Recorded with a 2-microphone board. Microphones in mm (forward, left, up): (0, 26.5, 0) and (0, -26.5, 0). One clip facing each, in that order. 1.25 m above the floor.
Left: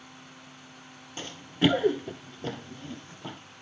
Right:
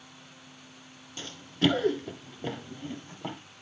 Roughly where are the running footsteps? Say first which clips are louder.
Left 2 dB; left.